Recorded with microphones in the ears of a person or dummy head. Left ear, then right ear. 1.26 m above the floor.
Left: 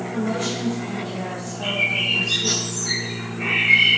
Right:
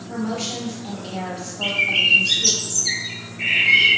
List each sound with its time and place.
0.1 s a woman speaking: 60° right (ahead or behind), 1.5 m
1.6 s a bird: 25° right (ahead or behind), 0.6 m